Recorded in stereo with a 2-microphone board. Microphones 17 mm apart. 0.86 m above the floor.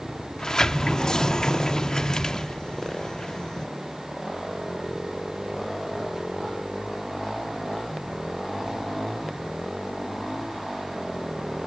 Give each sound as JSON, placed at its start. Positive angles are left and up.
{"t": 0.4, "sound": "a sliding door", "side_deg": 40, "distance_m": 0.8}